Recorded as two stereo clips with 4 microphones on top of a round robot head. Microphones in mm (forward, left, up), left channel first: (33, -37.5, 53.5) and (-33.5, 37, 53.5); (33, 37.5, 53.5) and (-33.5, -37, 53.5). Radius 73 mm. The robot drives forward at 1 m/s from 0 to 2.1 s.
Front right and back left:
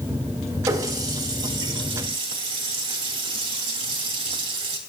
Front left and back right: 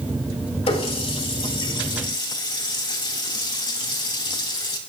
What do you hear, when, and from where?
0.7 s a running tap: 75° left, 4 m; by 4.8 s 95° left, 4 m